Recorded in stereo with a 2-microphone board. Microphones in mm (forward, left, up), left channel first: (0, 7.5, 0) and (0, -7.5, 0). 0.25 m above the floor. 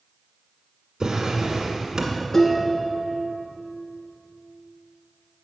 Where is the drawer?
40° right (ahead or behind), 1.5 m.